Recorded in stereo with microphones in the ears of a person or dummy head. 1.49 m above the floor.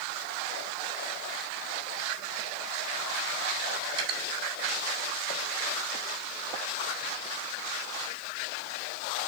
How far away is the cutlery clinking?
About 4.5 m.